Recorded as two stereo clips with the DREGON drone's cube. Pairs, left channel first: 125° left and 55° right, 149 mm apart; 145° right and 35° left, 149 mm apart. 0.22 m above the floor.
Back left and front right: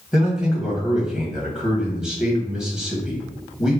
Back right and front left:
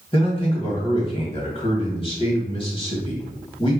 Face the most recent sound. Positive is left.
turn(degrees=-140)